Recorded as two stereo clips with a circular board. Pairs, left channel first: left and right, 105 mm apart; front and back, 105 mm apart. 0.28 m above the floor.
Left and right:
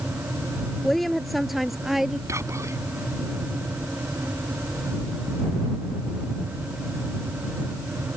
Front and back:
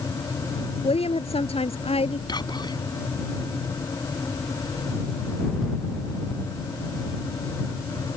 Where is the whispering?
35° right.